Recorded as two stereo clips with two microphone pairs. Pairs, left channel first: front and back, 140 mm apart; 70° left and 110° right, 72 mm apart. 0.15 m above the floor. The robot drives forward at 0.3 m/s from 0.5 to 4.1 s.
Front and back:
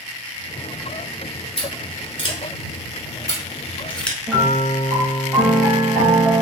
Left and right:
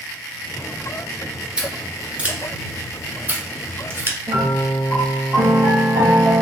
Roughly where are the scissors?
Ahead right.